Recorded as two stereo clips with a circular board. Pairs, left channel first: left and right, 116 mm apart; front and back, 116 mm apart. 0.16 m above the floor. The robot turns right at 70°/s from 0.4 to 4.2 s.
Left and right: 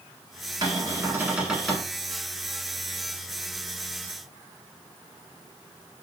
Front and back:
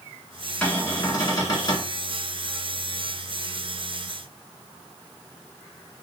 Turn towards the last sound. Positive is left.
turn(degrees=180)